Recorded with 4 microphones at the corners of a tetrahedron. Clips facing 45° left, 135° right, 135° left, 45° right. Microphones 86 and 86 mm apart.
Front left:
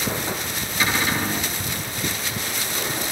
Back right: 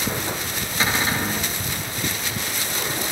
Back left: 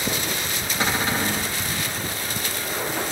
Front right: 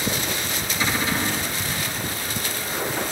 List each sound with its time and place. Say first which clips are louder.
0.8 s a cupboard door: even, back left 1 dB; 165° left, 5.5 m